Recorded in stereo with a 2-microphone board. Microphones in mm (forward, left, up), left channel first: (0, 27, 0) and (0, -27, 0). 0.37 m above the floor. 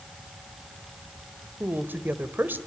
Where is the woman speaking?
40° right (ahead or behind), 1.4 m.